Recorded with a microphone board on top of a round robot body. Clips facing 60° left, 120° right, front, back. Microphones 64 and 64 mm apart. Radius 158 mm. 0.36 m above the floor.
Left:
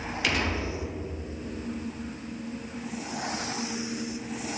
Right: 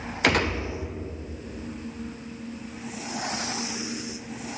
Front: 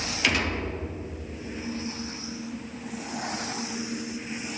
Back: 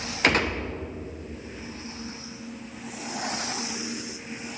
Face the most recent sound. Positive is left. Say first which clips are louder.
# right 6 dB, back 4 dB
turn(degrees=-145)